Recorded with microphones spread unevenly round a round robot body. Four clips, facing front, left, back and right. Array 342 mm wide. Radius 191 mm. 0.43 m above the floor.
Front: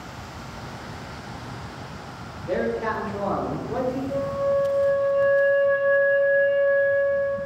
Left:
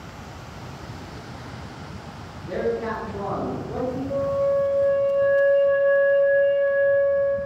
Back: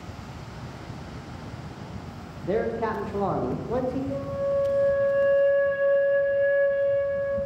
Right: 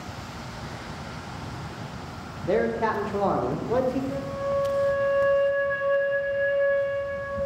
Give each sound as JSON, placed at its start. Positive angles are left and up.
{"t": 2.5, "sound": "a man speaking", "azimuth_deg": -145, "distance_m": 1.2}
{"t": 4.1, "sound": "a flute", "azimuth_deg": 130, "distance_m": 1.4}